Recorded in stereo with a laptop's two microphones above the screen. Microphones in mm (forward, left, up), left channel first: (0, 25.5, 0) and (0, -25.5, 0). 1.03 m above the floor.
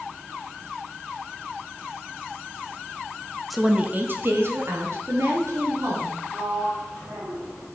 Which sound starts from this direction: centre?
A woman speaking, at 3.5 s.